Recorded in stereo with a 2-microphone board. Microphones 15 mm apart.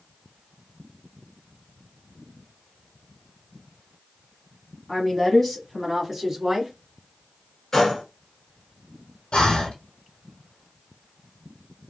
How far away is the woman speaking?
About 1.1 m.